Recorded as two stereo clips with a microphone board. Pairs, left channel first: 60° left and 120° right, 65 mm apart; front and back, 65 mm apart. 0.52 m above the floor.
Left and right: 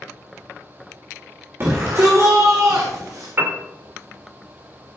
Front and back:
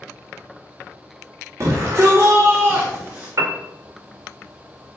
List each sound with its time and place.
1.6 s a shout: 155° right, 1.6 m; by 3.3 s 115° right, 1.9 m
3.4 s a piano: 165° right, 1.4 m